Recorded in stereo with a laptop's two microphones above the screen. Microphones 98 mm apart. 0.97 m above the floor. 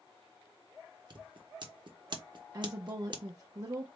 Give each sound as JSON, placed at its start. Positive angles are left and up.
{"t": 1.1, "sound": "scissors", "side_deg": -50, "distance_m": 0.7}
{"t": 2.5, "sound": "a woman speaking", "side_deg": -35, "distance_m": 0.6}